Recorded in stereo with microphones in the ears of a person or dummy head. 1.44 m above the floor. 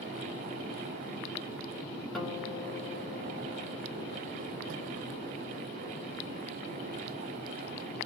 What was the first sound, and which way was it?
A guitar, centre (ahead or behind).